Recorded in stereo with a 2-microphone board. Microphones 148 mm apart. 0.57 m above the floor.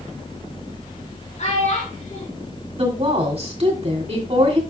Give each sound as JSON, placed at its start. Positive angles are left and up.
{"t": 1.4, "sound": "a child speaking", "side_deg": 50, "distance_m": 4.0}
{"t": 2.8, "sound": "a woman speaking", "side_deg": -45, "distance_m": 2.5}